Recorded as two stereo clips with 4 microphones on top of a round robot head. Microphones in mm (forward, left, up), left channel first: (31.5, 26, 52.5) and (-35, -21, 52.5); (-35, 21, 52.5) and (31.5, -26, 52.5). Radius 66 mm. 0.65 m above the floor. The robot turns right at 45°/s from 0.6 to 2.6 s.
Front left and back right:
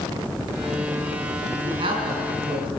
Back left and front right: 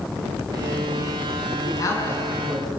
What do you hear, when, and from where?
1.6 s a man speaking: 170° right, 7 m; by 2.7 s 130° right, 7 m